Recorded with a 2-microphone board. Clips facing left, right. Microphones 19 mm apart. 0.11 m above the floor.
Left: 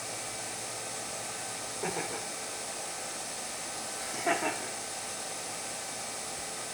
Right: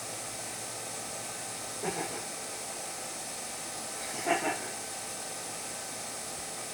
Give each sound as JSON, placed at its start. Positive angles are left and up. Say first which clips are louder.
{"t": 1.8, "sound": "laughter", "louder": "even", "side_deg": 30, "distance_m": 8.5}